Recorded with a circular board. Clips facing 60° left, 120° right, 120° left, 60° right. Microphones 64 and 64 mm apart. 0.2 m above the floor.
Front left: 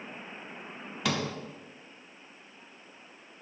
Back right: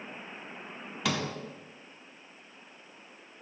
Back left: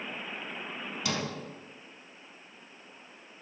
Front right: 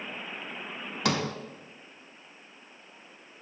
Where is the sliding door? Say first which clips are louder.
Front left 1 dB, front right 6 dB; 30° right, 0.5 m.